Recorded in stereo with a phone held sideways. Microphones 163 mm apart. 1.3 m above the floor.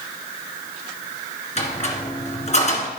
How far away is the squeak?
About 1.9 m.